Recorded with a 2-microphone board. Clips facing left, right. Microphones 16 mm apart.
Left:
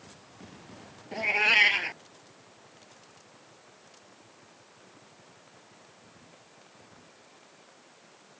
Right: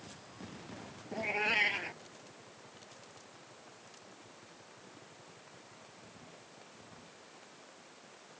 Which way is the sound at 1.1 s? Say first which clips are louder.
Left 9 dB; 50° left (ahead or behind).